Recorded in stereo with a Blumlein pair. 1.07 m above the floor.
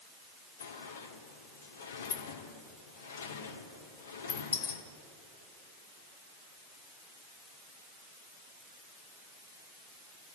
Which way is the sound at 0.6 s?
65° left.